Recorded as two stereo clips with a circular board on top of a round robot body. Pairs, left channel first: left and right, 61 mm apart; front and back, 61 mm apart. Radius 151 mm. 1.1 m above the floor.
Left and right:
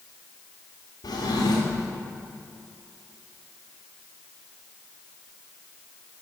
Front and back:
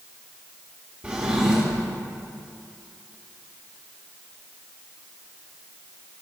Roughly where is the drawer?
Left.